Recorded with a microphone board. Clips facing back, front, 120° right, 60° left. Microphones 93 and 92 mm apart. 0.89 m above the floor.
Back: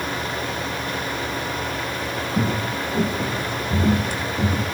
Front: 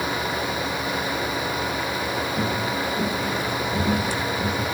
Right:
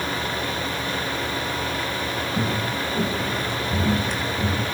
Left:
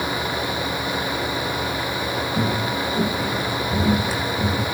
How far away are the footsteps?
About 4 m.